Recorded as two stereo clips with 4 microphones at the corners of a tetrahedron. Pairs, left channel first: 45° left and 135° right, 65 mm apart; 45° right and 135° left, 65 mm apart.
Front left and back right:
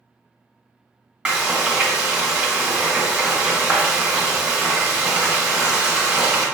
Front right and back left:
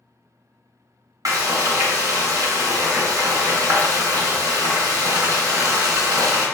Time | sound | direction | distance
1.2 | frying | 155° left | 1.2 m